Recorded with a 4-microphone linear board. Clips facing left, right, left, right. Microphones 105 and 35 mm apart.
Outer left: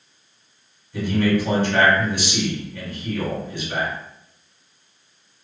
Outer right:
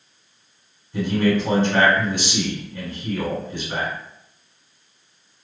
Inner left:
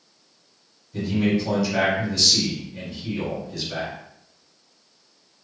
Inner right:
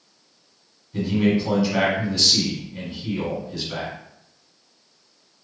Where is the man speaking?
20° right (ahead or behind), 1.7 m.